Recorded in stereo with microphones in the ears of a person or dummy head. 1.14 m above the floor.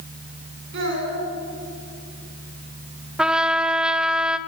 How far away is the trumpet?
About 1.1 m.